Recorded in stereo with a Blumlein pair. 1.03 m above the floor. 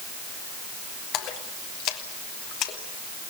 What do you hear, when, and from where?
1.1 s a splash: 40° left, 2.5 m